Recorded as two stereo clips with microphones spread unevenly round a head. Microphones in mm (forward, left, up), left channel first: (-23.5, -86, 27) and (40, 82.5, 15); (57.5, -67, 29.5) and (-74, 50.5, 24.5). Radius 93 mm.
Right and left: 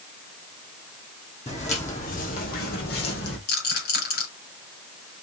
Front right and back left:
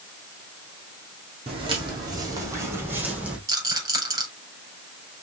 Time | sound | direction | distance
1.5 | footsteps | 160° right | 2.5 m
3.5 | a rattle | 150° right | 4.5 m